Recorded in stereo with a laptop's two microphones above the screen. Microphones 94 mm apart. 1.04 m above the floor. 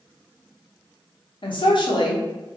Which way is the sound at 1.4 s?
60° left (ahead or behind).